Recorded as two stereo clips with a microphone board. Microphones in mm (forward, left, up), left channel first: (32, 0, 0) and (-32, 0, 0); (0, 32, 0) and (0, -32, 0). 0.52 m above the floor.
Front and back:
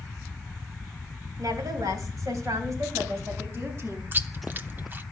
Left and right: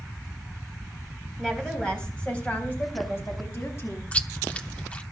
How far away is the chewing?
About 0.8 m.